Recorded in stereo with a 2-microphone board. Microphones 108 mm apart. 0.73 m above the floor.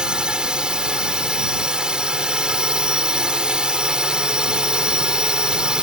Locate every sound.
0.0 s a drone: 10° right (ahead or behind)